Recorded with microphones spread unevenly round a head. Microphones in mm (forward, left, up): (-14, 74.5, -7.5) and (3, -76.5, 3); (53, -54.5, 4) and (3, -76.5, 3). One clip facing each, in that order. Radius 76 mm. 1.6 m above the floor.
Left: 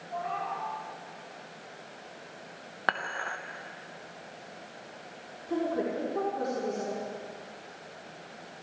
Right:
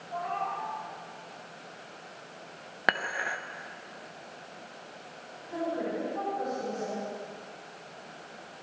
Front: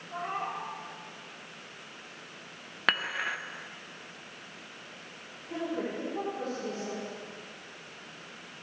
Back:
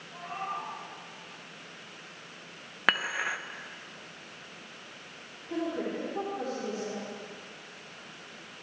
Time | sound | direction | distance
0.1 | a cat meowing | 20° left | 5 m
2.9 | dishes clattering | 80° right | 0.7 m
5.5 | a woman speaking | 120° left | 4 m